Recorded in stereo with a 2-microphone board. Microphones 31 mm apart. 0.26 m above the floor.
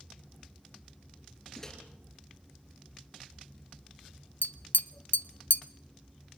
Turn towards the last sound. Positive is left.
turn(degrees=80)